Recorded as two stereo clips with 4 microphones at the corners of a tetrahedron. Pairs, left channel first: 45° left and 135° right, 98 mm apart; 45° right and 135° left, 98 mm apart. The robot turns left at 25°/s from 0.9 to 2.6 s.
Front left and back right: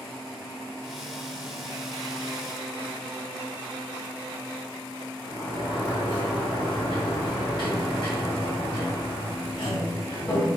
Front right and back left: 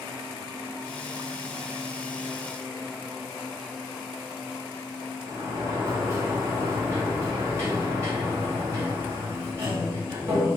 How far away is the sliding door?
About 2 m.